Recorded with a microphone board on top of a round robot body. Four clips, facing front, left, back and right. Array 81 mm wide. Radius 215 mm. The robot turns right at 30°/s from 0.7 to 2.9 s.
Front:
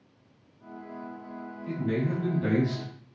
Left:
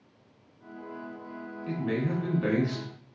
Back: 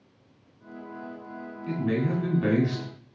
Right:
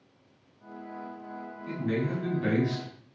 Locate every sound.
1.7 s a man speaking: 140° left, 1.7 m; by 2.8 s straight behind, 1.7 m